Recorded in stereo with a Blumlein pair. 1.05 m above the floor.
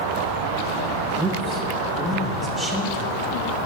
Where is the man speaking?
10° right, 1.2 m; by 3.2 s 20° right, 4 m.